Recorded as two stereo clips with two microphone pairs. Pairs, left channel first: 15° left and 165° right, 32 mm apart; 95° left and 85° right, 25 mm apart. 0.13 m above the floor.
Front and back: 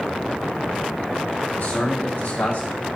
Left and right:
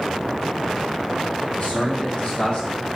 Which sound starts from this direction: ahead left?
A man speaking, at 1.6 s.